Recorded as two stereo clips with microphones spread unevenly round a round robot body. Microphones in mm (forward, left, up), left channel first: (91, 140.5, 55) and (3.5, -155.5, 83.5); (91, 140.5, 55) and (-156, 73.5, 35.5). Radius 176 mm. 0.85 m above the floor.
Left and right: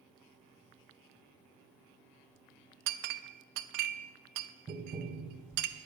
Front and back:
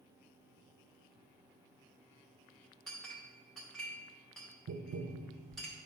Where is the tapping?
170° left, 0.8 m.